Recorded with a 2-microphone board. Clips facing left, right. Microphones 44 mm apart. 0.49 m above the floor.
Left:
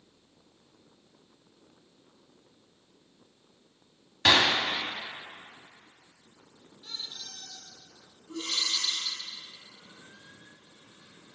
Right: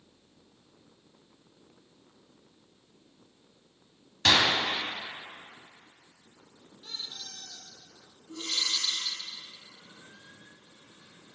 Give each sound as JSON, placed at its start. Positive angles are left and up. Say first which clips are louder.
{"t": 4.2, "sound": "a gunshot", "louder": "left 1 dB", "side_deg": 15, "distance_m": 0.6}
{"t": 6.8, "sound": "a squeak", "louder": "even", "side_deg": -65, "distance_m": 1.7}
{"t": 8.3, "sound": "breathing", "louder": "left 1 dB", "side_deg": 35, "distance_m": 2.0}